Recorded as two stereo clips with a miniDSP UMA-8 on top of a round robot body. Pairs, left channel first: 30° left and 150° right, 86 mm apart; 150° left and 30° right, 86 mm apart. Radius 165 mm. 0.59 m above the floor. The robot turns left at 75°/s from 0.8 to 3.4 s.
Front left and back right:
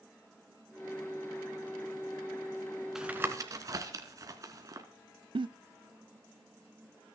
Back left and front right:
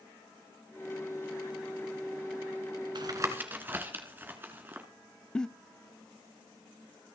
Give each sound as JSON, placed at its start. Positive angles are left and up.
{"t": 3.0, "sound": "tapping", "azimuth_deg": -65, "distance_m": 2.5}
{"t": 5.3, "sound": "a giggle", "azimuth_deg": -130, "distance_m": 0.8}